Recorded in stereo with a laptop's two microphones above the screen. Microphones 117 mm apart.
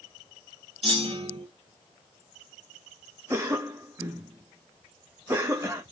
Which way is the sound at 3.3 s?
20° right (ahead or behind).